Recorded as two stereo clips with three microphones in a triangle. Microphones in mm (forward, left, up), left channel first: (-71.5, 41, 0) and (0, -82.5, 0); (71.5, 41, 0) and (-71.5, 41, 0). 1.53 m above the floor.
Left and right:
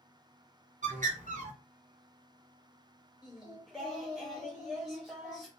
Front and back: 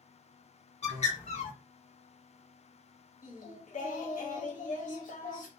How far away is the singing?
About 0.8 m.